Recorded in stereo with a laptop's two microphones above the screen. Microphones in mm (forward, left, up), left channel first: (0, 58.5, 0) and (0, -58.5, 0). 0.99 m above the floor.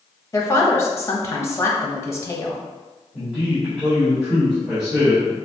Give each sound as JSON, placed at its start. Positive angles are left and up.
{"t": 0.3, "sound": "a woman speaking", "side_deg": 25, "distance_m": 1.2}
{"t": 3.1, "sound": "a man speaking", "side_deg": -15, "distance_m": 2.0}